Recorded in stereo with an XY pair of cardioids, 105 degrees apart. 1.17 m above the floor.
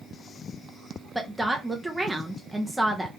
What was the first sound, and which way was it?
A woman speaking, 10° right.